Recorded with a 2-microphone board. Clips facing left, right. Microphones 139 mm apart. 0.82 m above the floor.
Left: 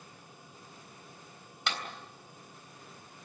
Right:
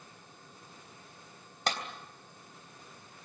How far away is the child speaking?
I don't hear a child speaking.